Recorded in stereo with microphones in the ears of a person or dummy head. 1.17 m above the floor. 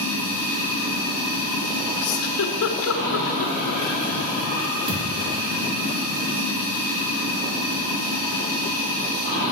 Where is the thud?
40° right (ahead or behind), 1.7 m.